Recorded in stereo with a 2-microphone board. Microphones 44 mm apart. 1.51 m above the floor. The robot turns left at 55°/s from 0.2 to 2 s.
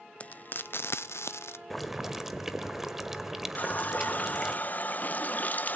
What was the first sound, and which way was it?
Frying, 30° left (ahead or behind).